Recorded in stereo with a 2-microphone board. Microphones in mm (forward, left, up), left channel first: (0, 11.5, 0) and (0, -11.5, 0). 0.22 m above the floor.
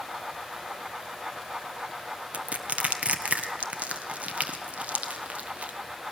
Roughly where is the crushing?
Right.